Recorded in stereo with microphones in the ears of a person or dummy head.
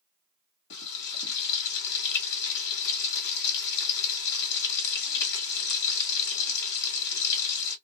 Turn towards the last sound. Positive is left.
turn(degrees=65)  # may be behind; listen again after turning